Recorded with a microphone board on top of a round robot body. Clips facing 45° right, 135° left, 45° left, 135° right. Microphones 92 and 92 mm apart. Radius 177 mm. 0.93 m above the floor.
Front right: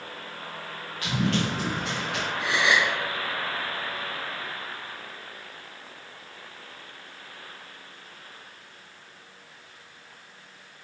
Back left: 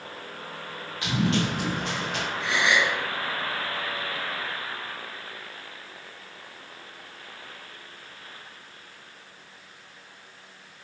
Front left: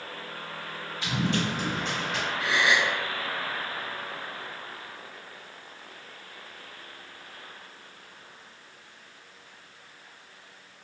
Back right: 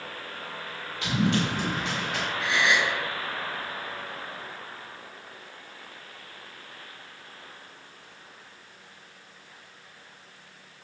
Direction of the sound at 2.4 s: 15° right.